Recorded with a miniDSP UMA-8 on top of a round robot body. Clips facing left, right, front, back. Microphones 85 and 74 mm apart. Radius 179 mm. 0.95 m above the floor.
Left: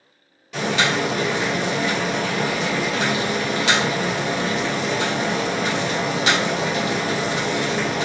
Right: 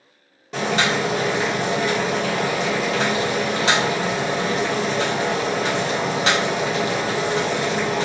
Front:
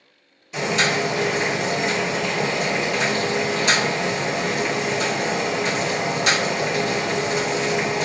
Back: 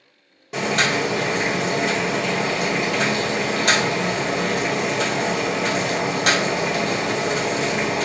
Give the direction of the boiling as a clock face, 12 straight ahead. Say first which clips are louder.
Even, back 1 dB; 5 o'clock.